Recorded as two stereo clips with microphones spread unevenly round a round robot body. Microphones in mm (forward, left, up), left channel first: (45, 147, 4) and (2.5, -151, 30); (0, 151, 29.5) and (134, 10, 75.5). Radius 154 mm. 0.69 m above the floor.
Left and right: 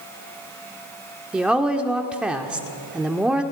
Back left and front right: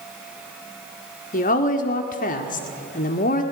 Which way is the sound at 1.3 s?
175° left.